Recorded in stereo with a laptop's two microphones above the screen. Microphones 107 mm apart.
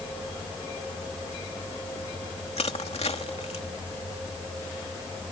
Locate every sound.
2.6 s crushing: 75° left (ahead or behind)